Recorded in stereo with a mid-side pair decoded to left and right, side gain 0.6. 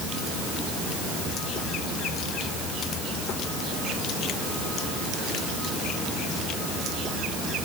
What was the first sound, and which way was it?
Only background noise.